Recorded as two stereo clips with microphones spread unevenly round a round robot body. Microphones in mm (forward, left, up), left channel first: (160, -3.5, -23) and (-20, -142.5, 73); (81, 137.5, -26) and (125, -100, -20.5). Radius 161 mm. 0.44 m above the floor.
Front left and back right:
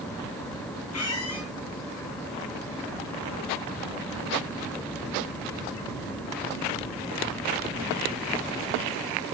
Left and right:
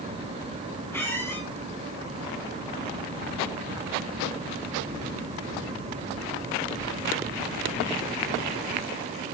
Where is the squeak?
20° left, 7 m.